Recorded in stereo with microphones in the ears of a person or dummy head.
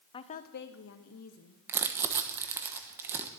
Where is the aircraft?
No aircraft in this recording.